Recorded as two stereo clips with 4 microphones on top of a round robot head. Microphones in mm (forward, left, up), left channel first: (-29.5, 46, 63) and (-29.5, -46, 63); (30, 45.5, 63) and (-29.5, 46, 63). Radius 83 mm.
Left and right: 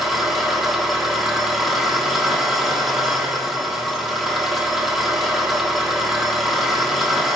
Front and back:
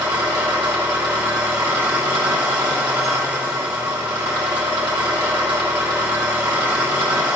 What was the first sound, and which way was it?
An engine running, 175° right.